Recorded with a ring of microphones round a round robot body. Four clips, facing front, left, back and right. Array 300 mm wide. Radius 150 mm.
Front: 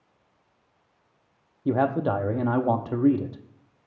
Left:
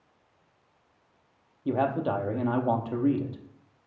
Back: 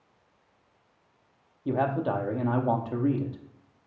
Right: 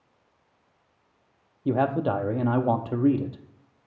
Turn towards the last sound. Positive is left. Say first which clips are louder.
# right 3 dB, front 3 dB
turn(degrees=-40)